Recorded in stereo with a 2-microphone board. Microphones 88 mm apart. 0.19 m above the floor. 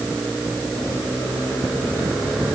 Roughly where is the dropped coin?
No dropped coin in this recording.